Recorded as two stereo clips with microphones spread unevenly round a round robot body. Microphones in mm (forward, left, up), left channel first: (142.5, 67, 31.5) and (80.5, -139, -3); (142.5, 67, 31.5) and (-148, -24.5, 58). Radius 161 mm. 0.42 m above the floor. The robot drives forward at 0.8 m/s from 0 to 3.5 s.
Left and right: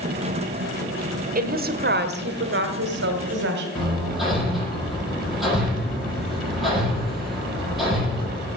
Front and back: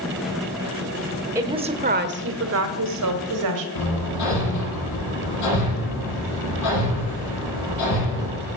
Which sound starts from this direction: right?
A woman speaking, at 1.4 s.